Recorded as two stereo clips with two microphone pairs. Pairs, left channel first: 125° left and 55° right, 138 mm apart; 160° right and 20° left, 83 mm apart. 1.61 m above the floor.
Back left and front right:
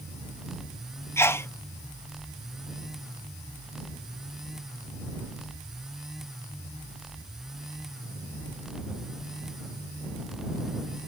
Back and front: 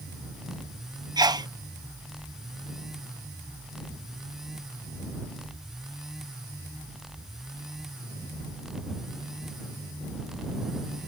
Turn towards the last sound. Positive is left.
turn(degrees=55)